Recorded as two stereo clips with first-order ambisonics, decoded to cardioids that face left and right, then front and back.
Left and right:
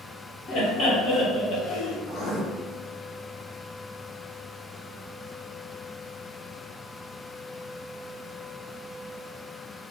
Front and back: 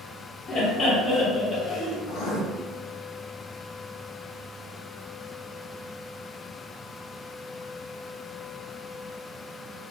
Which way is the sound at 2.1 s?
15° left.